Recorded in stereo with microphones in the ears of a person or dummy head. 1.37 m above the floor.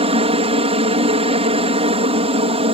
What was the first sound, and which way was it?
A helicopter, 30° right (ahead or behind).